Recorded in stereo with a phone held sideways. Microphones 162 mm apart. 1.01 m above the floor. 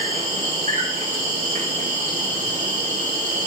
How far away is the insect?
About 1.8 m.